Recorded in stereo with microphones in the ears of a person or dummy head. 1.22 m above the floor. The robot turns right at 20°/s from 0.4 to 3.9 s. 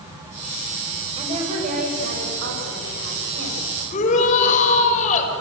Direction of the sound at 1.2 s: 150° right.